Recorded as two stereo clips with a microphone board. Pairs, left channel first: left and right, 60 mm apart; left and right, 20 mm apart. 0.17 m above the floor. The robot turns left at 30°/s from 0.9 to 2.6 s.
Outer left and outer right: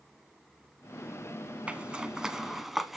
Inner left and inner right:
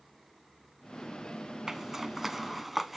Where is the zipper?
20° right (ahead or behind), 0.7 m; by 3.0 s 5° right (ahead or behind), 0.7 m.